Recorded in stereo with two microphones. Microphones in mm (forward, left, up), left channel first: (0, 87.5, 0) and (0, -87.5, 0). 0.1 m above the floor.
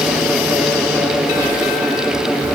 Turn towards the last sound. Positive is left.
No sound to turn to.